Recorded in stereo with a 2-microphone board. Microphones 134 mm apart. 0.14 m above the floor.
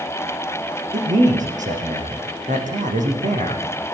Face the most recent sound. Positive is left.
turn(degrees=-75)  # may be behind; listen again after turning